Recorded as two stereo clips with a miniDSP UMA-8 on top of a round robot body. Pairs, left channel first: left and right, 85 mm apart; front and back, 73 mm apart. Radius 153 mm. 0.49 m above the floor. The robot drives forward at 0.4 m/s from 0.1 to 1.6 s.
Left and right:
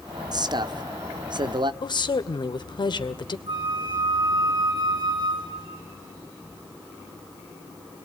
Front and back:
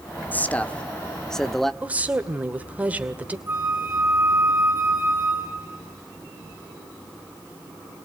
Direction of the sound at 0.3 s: 65° right.